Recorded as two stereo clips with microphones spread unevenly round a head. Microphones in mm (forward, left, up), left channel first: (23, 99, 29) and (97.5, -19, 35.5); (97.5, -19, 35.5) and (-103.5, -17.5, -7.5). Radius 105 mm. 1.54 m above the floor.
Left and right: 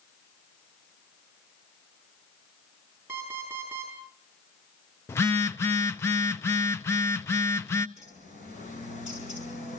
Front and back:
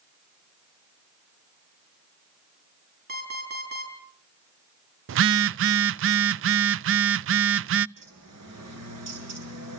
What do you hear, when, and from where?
3.1 s an alarm clock: 140° right, 8 m
5.1 s a phone buzzing: 160° right, 0.5 m
8.0 s a bird: straight behind, 8.5 m